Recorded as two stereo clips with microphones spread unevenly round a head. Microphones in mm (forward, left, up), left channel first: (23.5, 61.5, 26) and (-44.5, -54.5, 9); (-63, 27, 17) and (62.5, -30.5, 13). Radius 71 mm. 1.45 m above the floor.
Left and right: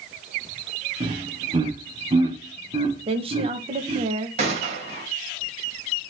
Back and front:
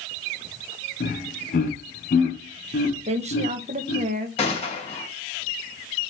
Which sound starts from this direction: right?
A woman speaking, at 3.1 s.